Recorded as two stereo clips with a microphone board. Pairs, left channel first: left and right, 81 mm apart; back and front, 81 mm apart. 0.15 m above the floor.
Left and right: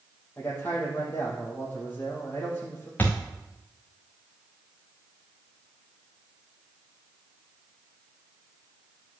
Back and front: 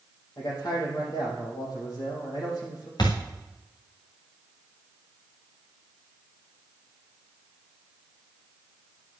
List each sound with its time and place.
0.4 s a man speaking: 155° left, 4 m
3.0 s a thud: 155° left, 2.5 m